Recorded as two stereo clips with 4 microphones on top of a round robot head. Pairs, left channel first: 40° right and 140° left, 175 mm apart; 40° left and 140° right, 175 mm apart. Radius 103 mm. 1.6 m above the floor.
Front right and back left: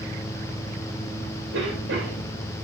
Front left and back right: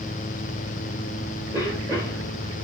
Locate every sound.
1.5 s a cough: 140° left, 2 m